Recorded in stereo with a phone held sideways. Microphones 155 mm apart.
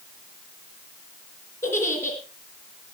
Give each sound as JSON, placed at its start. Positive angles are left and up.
{"t": 1.6, "sound": "a giggle", "side_deg": 20, "distance_m": 4.0}